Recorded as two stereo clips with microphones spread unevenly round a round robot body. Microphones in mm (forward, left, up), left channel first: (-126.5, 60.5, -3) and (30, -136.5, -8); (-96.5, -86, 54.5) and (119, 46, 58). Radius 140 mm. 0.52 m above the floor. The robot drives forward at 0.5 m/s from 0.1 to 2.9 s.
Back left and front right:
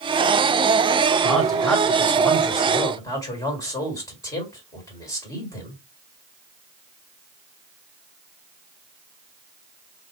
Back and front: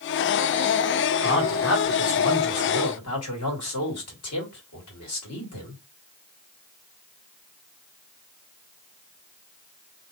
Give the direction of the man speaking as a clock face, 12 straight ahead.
5 o'clock.